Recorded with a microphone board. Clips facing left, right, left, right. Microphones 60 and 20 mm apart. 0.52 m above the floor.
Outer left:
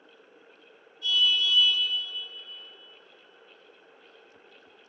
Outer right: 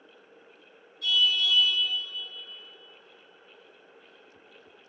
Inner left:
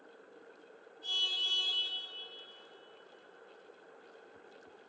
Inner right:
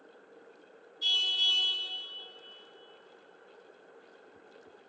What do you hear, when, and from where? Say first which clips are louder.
1.0 s a car horn: even, inner right 6 dB; 70° right (ahead or behind), 5 m